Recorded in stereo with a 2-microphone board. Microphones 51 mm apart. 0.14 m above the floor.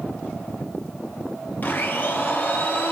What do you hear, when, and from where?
1.6 s a blender: 40° left (ahead or behind), 1.3 m